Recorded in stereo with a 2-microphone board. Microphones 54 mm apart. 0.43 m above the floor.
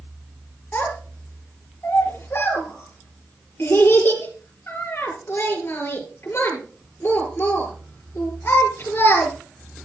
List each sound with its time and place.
0.7 s a child speaking: 45° left (ahead or behind), 7 m